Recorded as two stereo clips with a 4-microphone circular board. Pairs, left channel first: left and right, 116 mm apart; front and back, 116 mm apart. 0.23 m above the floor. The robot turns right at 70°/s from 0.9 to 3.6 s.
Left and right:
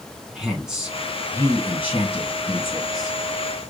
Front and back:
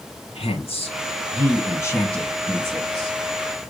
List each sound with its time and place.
0.3 s a woman speaking: 10° right, 1.9 m; by 3.2 s 155° left, 1.9 m